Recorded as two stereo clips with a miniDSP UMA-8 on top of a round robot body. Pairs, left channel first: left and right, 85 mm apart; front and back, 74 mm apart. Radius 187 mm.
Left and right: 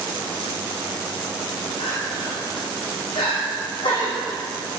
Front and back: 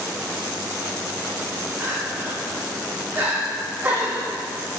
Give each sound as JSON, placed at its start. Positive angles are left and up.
{"t": 1.8, "sound": "crying", "azimuth_deg": 115, "distance_m": 6.5}